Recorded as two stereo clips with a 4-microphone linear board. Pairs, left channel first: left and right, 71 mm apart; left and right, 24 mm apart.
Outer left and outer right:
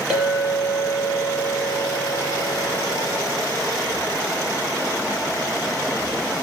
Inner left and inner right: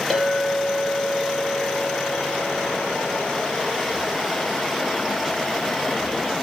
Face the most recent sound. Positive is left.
turn(degrees=-15)  # may be behind; listen again after turning